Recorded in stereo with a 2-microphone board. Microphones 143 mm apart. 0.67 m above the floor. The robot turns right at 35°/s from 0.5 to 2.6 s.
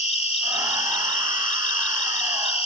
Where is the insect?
55° left; by 2.7 s 130° left.